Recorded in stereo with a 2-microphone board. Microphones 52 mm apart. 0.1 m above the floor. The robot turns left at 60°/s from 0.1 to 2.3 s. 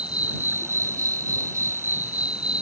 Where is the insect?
25° right; by 2.6 s 155° right.